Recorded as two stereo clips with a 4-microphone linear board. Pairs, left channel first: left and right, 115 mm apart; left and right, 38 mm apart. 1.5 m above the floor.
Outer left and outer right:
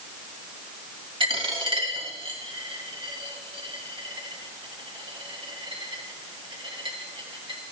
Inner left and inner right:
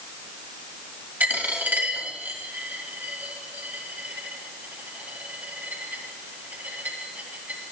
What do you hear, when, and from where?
1.2 s a dropped coin: 50° right (ahead or behind), 2.5 m